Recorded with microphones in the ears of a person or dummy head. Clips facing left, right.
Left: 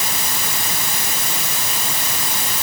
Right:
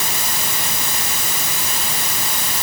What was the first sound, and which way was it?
Only background noise.